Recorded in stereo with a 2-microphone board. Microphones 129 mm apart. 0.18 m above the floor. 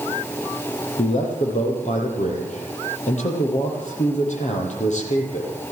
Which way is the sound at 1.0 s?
65° left (ahead or behind).